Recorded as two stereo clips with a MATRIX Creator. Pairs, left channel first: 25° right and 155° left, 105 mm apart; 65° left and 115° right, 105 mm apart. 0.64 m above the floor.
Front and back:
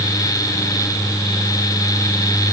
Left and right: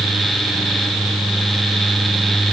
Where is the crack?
No crack in this recording.